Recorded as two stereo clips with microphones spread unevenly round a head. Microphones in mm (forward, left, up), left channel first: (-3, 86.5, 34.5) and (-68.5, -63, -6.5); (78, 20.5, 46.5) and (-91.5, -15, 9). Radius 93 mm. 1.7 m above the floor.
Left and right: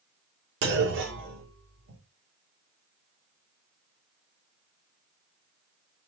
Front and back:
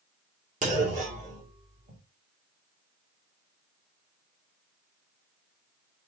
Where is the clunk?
120° right, 2.5 m.